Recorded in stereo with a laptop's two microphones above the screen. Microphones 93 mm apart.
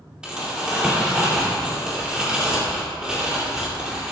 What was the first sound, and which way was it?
Crumpling, 10° right (ahead or behind).